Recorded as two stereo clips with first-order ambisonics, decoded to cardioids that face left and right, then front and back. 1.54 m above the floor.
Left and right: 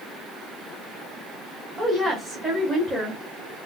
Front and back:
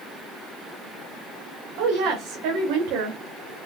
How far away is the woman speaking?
About 0.9 m.